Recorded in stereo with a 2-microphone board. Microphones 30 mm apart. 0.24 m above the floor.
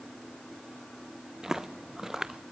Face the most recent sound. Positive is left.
turn(degrees=-15)  # may be behind; listen again after turning